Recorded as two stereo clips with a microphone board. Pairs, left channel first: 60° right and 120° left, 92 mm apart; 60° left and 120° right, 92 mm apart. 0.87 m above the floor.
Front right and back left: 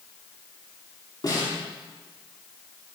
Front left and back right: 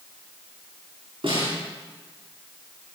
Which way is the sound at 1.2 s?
100° right.